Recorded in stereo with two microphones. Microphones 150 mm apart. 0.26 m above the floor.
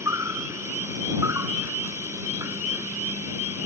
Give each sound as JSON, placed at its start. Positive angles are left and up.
{"t": 0.0, "sound": "an insect", "side_deg": -20}